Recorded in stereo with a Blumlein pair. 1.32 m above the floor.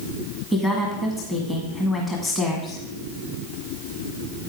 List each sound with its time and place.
0.5 s a woman speaking: 5° left, 1.6 m